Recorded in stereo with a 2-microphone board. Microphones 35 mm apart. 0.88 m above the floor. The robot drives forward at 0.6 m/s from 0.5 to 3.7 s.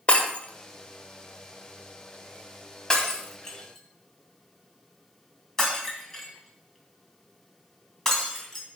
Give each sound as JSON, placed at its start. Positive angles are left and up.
{"t": 0.1, "sound": "breaking glass", "side_deg": 40, "distance_m": 1.5}